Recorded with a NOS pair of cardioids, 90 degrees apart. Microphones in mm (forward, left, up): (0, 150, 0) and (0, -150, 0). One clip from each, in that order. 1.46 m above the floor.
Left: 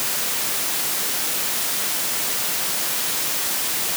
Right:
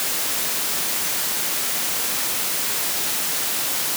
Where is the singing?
I don't hear singing.